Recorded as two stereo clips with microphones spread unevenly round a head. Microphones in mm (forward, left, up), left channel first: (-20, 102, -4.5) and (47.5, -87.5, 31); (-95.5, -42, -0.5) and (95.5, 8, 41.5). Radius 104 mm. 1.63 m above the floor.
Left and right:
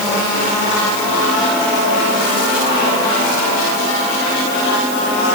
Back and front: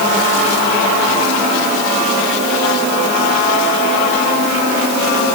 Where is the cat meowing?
No cat meowing in this recording.